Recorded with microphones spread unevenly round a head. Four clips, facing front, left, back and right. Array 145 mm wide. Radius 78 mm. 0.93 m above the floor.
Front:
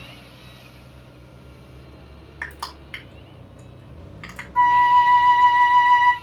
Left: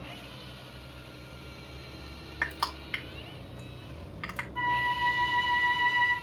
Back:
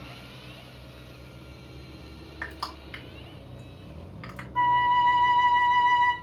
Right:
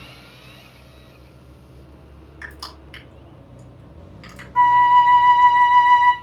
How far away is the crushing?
About 3.5 m.